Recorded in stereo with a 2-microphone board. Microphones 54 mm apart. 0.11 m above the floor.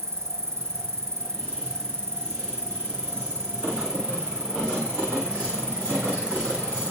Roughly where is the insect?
Right.